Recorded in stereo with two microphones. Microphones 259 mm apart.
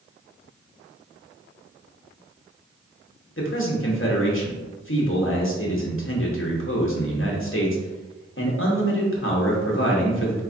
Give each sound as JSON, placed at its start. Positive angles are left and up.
{"t": 3.4, "sound": "a man speaking", "side_deg": 55, "distance_m": 1.0}